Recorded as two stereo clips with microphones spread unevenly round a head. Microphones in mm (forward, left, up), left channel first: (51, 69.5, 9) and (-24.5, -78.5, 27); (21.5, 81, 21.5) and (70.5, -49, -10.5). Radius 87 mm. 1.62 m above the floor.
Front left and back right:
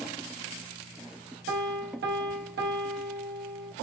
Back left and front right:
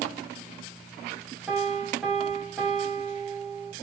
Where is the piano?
155° right, 0.6 m.